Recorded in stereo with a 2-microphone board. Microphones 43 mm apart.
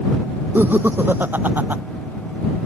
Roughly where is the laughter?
Right.